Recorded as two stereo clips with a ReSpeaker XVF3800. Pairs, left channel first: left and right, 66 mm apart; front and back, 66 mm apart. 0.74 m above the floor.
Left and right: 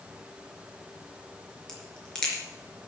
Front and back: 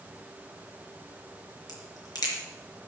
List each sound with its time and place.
1.7 s a crack: 10° left, 4 m